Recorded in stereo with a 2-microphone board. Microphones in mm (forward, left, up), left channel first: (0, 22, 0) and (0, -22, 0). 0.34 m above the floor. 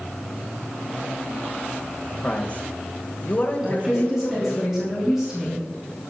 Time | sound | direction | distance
2.2 | a man speaking | 25° left (ahead or behind) | 1.4 m
3.6 | a woman speaking | 10° right (ahead or behind) | 3 m